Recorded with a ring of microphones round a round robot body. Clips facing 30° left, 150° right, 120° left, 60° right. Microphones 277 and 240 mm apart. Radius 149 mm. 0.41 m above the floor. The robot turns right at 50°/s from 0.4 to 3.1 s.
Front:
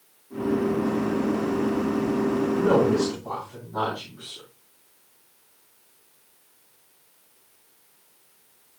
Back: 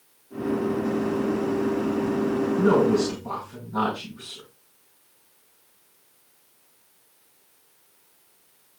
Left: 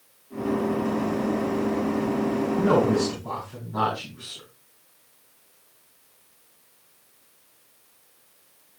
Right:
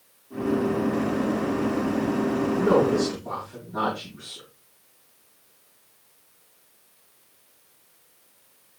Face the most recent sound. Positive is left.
turn(degrees=165)